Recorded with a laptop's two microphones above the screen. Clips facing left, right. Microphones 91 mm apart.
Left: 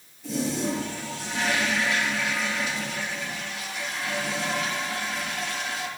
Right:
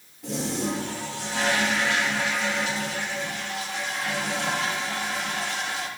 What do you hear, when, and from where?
0.2 s a toilet flushing: 75° right (ahead or behind), 3 m